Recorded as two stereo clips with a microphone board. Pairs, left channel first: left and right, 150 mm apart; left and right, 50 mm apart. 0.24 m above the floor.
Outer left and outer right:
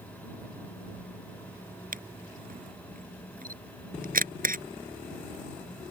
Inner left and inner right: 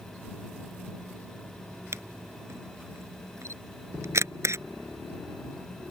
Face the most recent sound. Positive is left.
turn(degrees=-70)  # may be behind; listen again after turning